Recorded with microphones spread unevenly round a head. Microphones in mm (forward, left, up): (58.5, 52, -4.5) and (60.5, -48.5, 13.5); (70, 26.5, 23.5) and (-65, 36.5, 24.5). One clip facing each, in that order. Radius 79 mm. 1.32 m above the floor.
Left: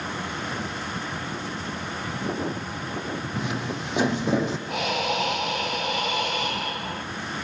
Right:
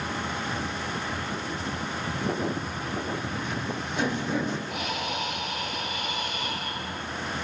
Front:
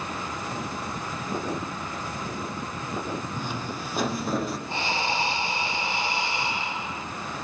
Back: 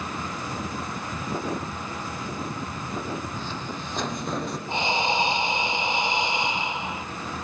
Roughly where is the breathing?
Left.